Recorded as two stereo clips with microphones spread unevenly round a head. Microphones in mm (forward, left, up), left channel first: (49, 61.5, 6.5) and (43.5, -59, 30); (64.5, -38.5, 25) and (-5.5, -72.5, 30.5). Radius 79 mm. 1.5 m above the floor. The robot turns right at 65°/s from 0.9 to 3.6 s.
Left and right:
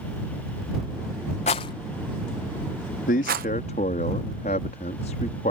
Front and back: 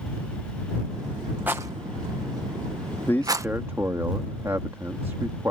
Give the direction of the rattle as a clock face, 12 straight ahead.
8 o'clock.